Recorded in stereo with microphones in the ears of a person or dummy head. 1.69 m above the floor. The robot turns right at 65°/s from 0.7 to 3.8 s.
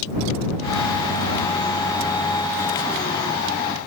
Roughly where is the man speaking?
I don't hear a man speaking.